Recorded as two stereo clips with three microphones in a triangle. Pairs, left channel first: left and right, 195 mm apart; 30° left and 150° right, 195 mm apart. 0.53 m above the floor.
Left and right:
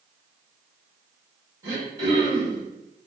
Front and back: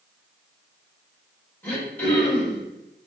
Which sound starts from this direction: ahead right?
Throat clearing, at 1.6 s.